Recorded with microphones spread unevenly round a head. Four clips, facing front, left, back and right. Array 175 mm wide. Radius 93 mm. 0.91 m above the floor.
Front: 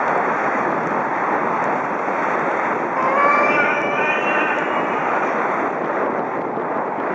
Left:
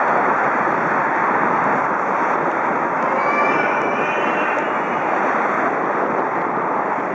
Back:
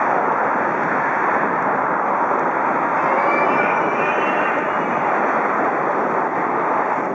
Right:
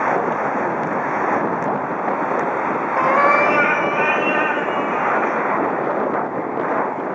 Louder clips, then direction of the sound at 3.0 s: Right 7 dB, front 4 dB; 45° right.